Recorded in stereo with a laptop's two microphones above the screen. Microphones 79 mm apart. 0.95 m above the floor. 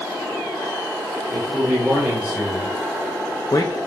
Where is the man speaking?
30° right (ahead or behind), 2.5 m; by 3.7 s 60° left (ahead or behind), 1.1 m.